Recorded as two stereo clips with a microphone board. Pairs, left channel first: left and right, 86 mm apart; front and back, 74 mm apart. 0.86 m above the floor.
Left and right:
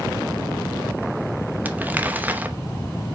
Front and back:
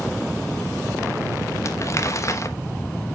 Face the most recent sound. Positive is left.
turn(degrees=-25)